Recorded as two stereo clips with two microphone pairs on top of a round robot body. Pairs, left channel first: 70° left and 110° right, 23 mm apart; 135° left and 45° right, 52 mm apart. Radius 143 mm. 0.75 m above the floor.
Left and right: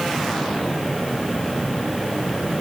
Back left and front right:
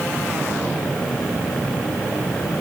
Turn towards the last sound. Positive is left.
No sound to turn to.